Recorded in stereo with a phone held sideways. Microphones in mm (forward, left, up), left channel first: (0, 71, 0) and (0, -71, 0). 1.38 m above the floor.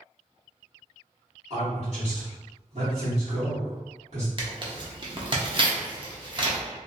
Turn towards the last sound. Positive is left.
turn(degrees=-40)  # may be behind; listen again after turning